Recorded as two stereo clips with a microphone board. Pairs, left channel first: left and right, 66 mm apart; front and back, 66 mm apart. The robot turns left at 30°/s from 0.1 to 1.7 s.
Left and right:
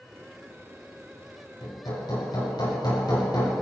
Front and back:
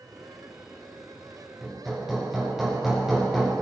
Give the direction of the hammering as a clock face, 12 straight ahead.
9 o'clock.